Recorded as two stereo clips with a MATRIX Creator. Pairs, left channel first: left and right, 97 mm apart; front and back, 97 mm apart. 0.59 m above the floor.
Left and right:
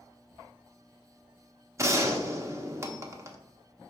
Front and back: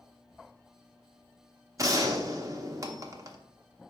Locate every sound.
1.8 s a gunshot: 140° right, 0.9 m